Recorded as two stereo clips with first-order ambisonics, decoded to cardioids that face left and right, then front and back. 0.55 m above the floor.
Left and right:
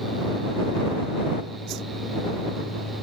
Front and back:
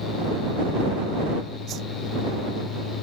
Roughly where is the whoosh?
Behind right.